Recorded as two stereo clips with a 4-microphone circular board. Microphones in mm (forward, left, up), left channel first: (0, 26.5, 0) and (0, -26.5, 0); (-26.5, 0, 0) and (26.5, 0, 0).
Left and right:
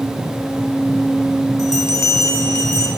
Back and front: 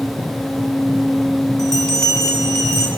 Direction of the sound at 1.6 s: 100° left.